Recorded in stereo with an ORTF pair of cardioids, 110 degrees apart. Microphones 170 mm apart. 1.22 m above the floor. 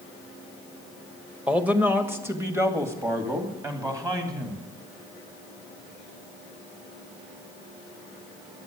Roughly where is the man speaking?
Ahead.